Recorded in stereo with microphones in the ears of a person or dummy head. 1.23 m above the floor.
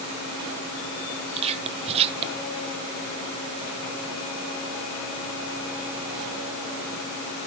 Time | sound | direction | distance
1.4 | whispering | 30° right (ahead or behind) | 0.9 m